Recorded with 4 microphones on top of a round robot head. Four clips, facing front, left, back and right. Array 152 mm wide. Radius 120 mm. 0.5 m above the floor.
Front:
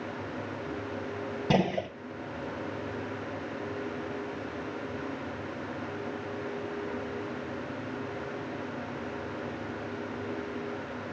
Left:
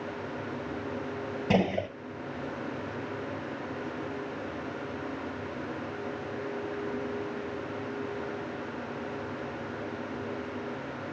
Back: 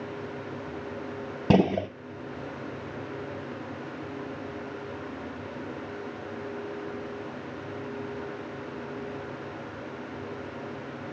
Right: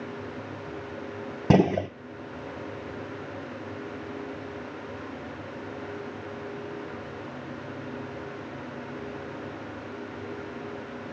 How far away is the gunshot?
About 1.4 m.